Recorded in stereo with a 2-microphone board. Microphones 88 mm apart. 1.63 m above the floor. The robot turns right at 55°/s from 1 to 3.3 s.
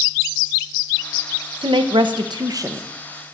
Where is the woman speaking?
100° right, 1.1 m; by 2.9 s 30° right, 1.1 m.